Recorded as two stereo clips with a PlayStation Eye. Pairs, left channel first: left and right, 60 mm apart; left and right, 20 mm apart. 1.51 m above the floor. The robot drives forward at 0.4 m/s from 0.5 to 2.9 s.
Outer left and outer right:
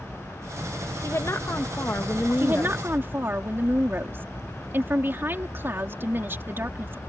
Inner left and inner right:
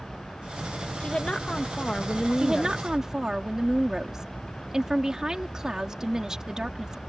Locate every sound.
1.0 s a woman speaking: 50° left (ahead or behind); by 3.4 s 35° left (ahead or behind)
2.4 s a woman speaking: 40° right (ahead or behind); by 7.0 s 35° right (ahead or behind)